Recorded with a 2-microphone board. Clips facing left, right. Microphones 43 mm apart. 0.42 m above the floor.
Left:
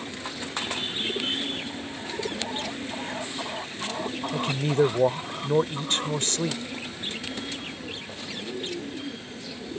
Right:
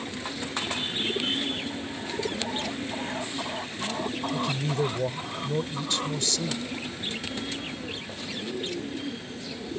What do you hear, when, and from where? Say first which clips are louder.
4.3 s a man speaking: left 6 dB; 45° left (ahead or behind)